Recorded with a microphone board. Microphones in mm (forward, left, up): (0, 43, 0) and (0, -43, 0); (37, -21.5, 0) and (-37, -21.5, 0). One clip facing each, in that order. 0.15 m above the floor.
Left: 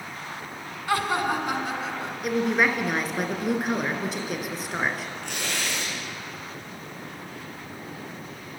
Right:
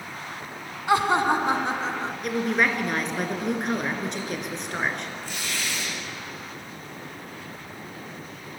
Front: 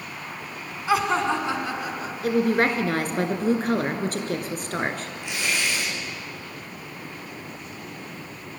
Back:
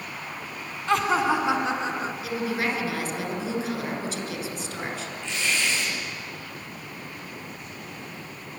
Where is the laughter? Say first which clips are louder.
Right 4 dB, even; 70° right, 1.1 m; by 2.1 s 135° right, 1.7 m.